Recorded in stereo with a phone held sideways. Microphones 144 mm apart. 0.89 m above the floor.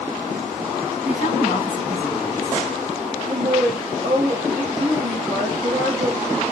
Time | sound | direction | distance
1.1 | a woman speaking | 70° right (ahead or behind) | 7.5 m
3.2 | a woman speaking | 85° right | 4 m